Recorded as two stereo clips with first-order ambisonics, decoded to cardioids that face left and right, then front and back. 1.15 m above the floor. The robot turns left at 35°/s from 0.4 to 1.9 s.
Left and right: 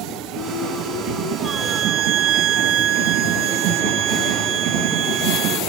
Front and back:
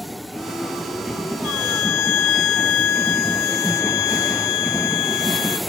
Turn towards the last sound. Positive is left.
turn(degrees=-40)